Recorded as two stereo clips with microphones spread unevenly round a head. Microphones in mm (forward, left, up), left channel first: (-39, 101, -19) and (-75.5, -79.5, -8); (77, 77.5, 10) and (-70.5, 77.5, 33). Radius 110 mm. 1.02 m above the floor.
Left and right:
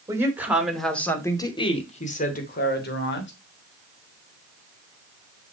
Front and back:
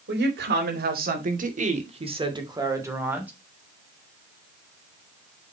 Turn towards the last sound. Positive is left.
turn(degrees=100)